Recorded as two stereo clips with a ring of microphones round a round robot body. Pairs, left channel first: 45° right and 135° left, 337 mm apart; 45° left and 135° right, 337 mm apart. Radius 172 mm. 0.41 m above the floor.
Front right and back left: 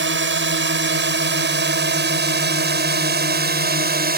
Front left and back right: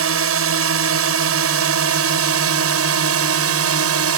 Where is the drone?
175° right; by 4.2 s 170° right.